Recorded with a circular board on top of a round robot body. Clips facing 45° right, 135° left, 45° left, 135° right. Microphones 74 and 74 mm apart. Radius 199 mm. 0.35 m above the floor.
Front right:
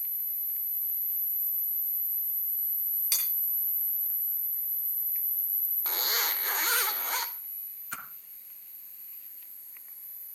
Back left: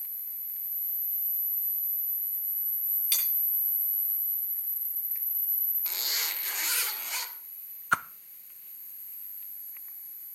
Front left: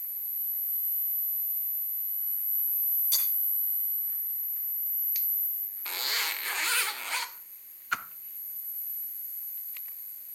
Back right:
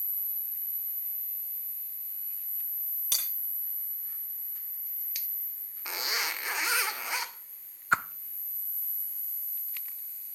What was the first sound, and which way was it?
Cutlery clinking, 115° right.